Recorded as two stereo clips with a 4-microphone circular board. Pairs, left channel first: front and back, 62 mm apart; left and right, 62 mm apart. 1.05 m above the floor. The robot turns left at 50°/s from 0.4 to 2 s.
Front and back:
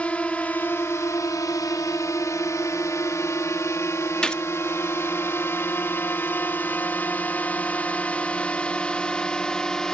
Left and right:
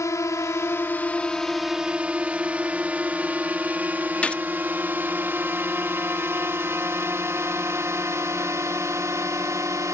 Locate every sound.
0.0 s a drone: 65° left; by 9.9 s 80° right
4.2 s a gunshot: 60° left